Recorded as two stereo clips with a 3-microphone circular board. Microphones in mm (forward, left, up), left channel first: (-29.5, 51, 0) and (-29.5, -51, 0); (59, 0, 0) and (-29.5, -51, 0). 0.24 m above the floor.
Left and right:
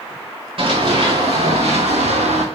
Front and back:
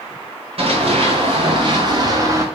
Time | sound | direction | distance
0.6 | running footsteps | 120° right | 4 m